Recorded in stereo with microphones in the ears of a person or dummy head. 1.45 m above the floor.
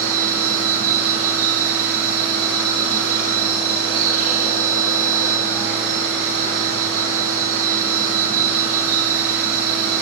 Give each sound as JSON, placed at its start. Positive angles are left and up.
{"t": 0.0, "sound": "a machine running", "side_deg": -70, "distance_m": 1.0}